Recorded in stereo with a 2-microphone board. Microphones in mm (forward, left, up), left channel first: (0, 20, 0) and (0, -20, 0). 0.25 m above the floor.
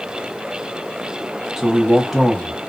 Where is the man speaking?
5° right (ahead or behind), 1.0 m.